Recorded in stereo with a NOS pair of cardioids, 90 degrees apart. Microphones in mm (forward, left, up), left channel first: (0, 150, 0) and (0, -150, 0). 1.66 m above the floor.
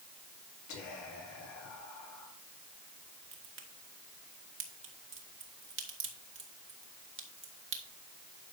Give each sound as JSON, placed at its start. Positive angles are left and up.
{"t": 0.7, "sound": "whispering", "azimuth_deg": 70, "distance_m": 4.5}
{"t": 3.3, "sound": "a crack", "azimuth_deg": -40, "distance_m": 2.0}